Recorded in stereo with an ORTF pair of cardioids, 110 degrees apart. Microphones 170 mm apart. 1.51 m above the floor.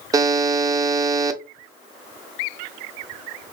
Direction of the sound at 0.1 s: 20° right.